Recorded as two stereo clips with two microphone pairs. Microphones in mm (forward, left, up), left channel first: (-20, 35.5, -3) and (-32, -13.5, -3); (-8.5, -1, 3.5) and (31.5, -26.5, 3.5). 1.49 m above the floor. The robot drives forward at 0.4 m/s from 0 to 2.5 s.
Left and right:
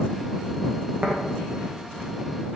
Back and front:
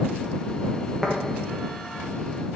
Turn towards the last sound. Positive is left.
turn(degrees=-155)